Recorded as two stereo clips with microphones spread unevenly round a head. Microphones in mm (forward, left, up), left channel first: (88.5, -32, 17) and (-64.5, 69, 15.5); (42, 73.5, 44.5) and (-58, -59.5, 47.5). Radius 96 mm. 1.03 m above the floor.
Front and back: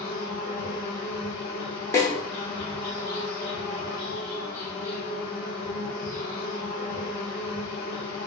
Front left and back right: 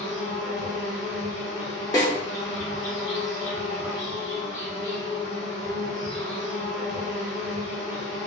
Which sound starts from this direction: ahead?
A snare drum, at 1.9 s.